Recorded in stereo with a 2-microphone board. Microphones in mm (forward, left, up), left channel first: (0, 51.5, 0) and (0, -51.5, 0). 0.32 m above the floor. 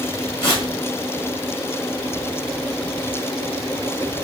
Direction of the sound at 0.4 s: 50° left (ahead or behind).